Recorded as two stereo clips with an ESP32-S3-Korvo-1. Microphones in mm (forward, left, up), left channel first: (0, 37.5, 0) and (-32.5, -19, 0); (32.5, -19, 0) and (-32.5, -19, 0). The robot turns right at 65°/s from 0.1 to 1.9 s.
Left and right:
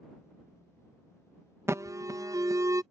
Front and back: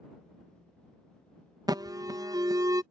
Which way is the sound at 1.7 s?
170° right.